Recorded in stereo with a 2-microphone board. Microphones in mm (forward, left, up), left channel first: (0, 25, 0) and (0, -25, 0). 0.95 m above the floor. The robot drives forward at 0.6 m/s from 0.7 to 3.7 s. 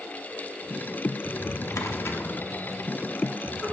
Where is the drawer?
60° left (ahead or behind), 0.7 m; by 3.7 s 25° left (ahead or behind), 1.4 m.